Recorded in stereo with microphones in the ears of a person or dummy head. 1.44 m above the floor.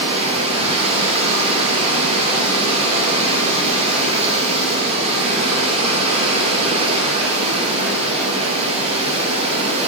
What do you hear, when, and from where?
0.0 s running water: 30° right (ahead or behind), 3.5 m